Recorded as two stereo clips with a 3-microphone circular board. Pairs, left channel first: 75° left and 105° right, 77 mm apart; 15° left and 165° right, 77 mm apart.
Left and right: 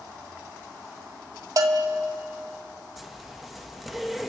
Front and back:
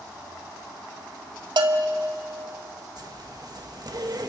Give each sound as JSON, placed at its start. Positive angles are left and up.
{"t": 1.6, "sound": "a bell", "azimuth_deg": -145, "distance_m": 1.9}
{"t": 3.0, "sound": "a zipper", "azimuth_deg": 165, "distance_m": 1.6}